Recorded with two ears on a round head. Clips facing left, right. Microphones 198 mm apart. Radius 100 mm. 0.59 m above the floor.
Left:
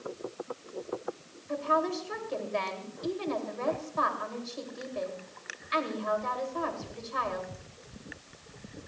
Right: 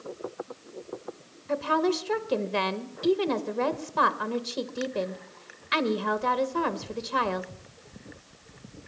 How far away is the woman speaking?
About 2.0 m.